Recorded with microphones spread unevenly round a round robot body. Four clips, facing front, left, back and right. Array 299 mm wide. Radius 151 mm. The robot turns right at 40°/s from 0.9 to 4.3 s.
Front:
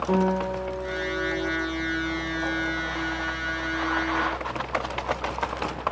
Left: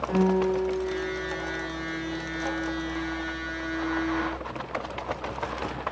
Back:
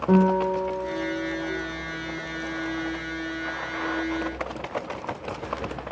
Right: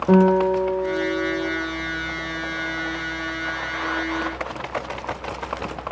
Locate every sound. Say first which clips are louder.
0.1 s a guitar: right 8 dB, back 5 dB; 100° right, 2.5 m; by 1.5 s 75° right, 2.5 m